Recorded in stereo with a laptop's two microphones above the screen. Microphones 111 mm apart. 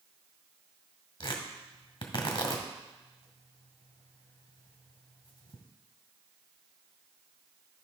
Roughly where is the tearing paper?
Left.